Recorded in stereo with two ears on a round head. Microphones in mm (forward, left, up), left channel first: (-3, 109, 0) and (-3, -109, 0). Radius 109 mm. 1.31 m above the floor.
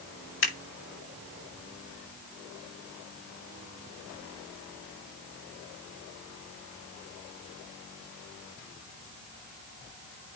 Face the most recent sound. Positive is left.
turn(degrees=50)  # may be behind; listen again after turning